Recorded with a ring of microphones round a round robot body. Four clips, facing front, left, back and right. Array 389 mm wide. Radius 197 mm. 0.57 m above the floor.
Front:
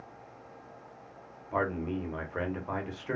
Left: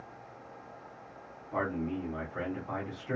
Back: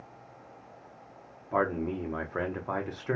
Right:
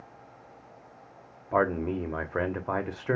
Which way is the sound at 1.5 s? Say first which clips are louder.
Right 7 dB, back 2 dB; 105° right.